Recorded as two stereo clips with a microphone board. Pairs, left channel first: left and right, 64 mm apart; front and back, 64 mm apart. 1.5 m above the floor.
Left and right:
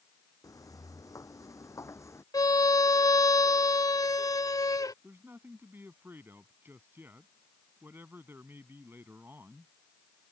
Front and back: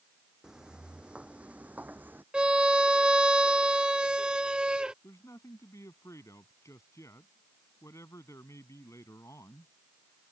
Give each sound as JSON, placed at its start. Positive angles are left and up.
{"t": 0.4, "sound": "footsteps", "azimuth_deg": 100}
{"t": 2.3, "sound": "a violin", "azimuth_deg": 105}
{"t": 5.0, "sound": "a man speaking", "azimuth_deg": -35}